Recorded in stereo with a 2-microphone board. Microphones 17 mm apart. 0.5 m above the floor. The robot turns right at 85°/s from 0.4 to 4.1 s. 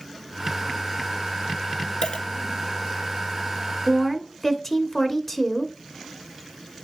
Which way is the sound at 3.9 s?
5° left (ahead or behind).